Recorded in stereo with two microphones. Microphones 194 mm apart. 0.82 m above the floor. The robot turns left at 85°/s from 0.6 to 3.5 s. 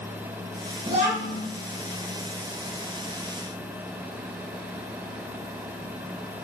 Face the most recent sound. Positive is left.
turn(degrees=110)